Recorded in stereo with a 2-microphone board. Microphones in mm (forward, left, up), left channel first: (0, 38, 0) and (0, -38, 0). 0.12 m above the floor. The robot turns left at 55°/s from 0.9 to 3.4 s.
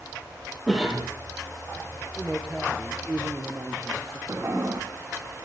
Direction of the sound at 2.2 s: 20° left.